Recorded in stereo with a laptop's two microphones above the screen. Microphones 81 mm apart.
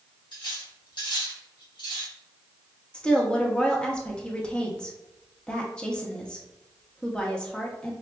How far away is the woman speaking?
About 0.9 m.